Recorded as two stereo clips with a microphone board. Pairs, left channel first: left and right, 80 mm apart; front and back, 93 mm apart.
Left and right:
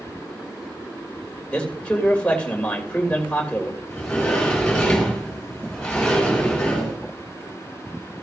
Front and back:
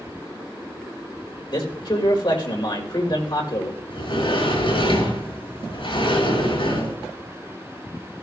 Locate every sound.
1.5 s a man speaking: 20° left, 3 m
3.9 s a sliding door: 10° left, 6.5 m